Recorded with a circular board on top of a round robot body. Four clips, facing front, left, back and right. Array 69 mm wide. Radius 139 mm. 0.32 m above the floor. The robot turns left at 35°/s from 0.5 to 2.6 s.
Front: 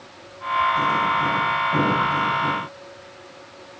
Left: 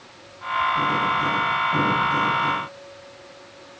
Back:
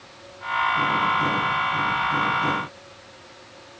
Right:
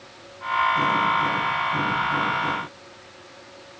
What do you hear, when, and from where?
Only background noise.